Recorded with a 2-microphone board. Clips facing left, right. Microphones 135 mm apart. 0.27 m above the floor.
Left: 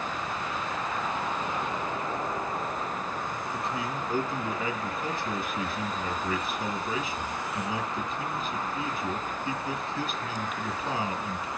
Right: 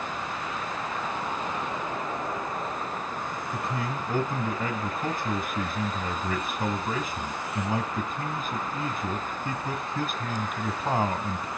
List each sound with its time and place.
3.5 s a man speaking: 50° right (ahead or behind), 1.9 m